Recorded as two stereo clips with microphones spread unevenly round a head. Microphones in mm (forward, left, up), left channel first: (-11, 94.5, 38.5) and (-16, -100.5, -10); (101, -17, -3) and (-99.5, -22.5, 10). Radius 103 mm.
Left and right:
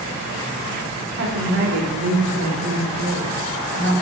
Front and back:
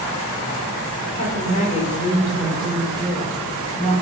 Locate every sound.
1.1 s a woman speaking: 55° right, 5 m; by 4.0 s 80° right, 6.5 m